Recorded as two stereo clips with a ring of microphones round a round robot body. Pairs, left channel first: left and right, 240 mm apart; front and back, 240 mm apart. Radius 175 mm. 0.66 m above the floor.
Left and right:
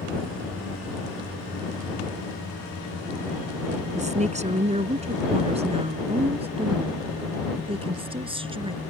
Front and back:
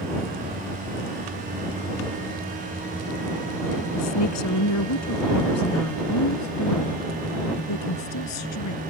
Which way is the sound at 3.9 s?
30° right.